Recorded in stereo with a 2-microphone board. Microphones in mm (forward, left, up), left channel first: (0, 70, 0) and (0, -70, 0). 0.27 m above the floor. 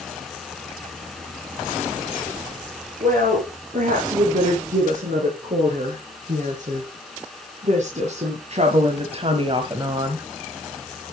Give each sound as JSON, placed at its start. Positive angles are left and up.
{"t": 3.0, "sound": "a woman speaking", "side_deg": -70, "distance_m": 4.5}